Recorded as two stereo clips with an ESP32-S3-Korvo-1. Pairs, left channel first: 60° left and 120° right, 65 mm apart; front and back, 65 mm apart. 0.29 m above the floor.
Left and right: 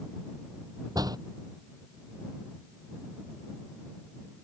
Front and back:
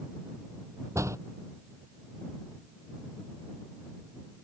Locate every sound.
0.9 s a door slam: 135° right